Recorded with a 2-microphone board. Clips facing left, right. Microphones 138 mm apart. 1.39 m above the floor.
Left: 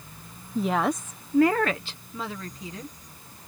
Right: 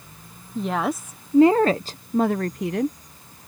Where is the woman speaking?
5° left (ahead or behind); by 3.0 s 70° right (ahead or behind).